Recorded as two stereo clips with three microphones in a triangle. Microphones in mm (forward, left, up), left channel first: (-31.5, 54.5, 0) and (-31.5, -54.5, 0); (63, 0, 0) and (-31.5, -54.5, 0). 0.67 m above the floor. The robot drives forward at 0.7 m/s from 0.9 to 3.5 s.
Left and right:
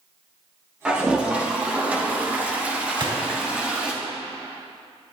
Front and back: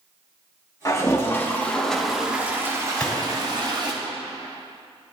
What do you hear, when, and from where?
0.8 s a toilet flushing: 15° right, 1.4 m; by 3.9 s 165° right, 1.4 m
2.9 s a gunshot: 50° right, 1.9 m; by 3.2 s 55° right, 1.8 m